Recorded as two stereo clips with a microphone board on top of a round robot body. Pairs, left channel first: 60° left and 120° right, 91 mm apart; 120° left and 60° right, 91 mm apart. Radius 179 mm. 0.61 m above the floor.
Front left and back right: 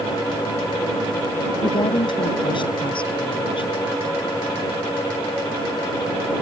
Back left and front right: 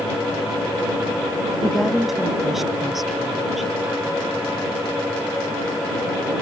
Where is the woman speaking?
30° left.